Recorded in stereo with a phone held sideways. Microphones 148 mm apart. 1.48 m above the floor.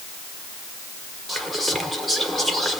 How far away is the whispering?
About 0.9 m.